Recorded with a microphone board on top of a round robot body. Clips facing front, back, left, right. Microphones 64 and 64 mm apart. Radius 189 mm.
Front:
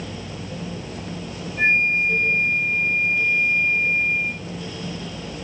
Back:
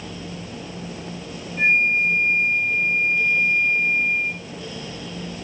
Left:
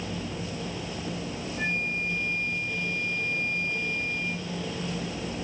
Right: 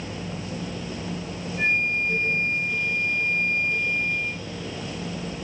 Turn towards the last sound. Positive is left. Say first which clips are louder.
# back 1 dB, right 7 dB
turn(degrees=-100)